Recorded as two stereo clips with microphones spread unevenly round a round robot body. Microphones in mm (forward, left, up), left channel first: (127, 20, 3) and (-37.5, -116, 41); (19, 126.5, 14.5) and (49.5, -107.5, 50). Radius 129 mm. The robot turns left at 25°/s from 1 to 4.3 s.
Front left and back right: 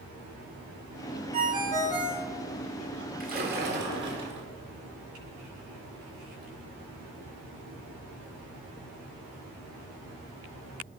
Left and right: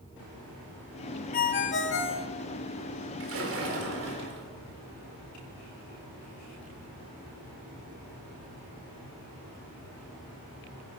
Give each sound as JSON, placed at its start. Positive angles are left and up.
{"t": 1.3, "sound": "a ringtone", "azimuth_deg": 150, "distance_m": 0.6}
{"t": 3.2, "sound": "a splash", "azimuth_deg": -95, "distance_m": 1.6}